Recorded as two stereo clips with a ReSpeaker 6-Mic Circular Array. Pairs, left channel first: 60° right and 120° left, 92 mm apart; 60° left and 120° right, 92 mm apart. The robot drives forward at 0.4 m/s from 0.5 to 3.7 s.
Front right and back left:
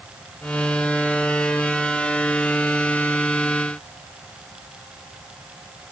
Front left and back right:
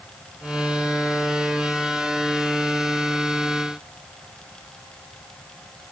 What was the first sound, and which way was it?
Only background noise.